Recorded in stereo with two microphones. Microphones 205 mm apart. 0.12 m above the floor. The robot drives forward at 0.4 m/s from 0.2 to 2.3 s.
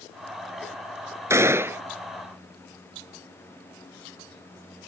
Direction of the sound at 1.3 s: 15° right (ahead or behind).